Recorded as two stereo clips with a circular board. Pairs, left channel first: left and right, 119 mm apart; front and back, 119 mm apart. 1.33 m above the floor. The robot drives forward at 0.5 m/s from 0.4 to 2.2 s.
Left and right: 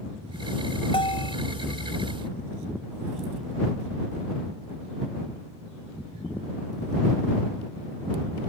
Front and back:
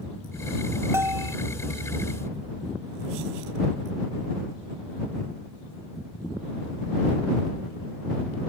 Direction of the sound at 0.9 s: 115° left.